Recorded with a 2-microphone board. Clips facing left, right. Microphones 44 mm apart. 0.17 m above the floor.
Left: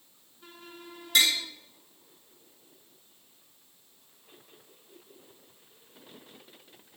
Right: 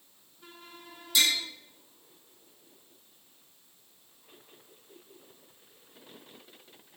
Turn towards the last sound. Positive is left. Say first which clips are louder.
# left 2 dB
turn(degrees=55)  # may be behind; listen again after turning